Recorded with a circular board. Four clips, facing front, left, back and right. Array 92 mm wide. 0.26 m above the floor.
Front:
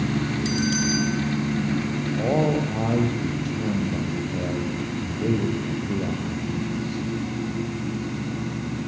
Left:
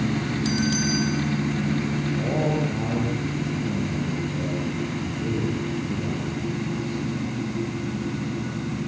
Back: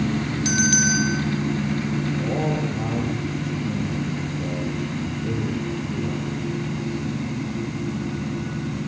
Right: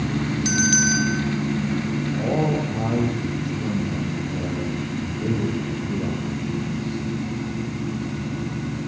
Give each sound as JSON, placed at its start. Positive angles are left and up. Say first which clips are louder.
{"t": 0.5, "sound": "a bell", "louder": "right 2 dB, back 4 dB", "azimuth_deg": -135, "distance_m": 8.5}
{"t": 2.2, "sound": "a man speaking", "louder": "right 2 dB, front 7 dB", "azimuth_deg": -15, "distance_m": 8.5}